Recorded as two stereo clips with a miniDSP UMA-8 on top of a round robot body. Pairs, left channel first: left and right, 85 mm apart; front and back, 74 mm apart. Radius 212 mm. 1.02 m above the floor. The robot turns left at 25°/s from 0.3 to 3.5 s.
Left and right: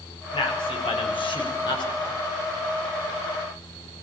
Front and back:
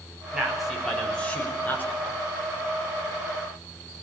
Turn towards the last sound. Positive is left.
turn(degrees=20)